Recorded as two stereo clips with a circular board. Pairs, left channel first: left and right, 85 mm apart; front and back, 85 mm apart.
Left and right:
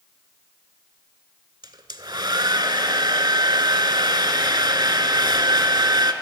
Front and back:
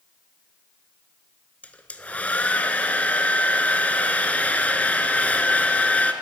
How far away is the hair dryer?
About 0.8 m.